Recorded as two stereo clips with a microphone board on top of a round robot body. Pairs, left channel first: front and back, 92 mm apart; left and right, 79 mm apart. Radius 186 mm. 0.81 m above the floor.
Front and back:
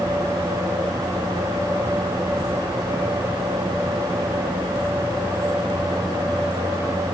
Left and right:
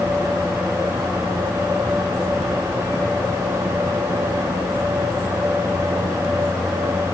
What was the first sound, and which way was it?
Only background noise.